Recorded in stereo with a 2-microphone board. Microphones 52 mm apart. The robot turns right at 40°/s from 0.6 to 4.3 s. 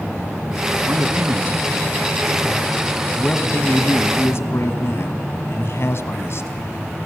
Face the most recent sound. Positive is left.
turn(degrees=75)